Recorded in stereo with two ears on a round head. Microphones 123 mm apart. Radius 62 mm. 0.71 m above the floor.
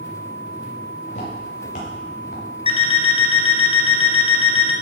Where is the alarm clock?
50° left (ahead or behind), 2 m.